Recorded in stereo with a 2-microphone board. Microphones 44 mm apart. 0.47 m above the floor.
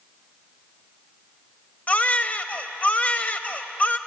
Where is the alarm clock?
No alarm clock in this recording.